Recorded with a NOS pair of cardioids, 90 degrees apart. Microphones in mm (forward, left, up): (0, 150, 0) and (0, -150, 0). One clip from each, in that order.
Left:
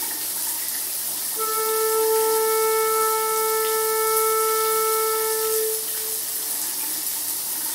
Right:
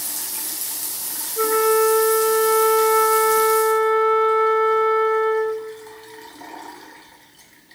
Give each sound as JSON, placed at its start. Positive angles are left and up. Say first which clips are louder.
{"t": 1.4, "sound": "a flute", "louder": "right 7 dB", "azimuth_deg": -45, "distance_m": 0.8}